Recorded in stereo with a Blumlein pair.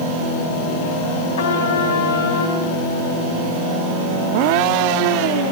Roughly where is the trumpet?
Ahead left.